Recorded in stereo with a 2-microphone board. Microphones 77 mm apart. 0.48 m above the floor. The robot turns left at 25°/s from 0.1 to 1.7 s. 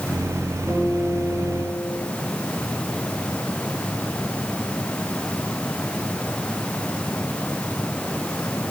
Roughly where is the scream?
I don't hear a scream.